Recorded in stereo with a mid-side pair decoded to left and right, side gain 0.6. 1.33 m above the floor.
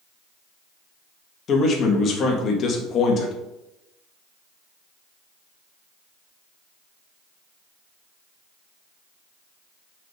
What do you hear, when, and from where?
1.5 s a man speaking: 45° left, 2 m